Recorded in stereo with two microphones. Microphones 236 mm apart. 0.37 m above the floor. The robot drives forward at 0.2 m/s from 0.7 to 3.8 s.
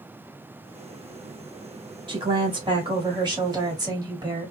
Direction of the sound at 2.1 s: 20° right (ahead or behind).